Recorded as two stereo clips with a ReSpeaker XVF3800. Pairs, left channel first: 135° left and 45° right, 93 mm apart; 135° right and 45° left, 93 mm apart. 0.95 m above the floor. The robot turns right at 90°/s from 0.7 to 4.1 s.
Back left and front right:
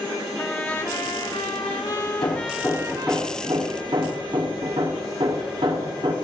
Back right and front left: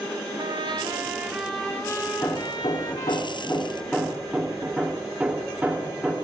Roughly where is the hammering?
Behind.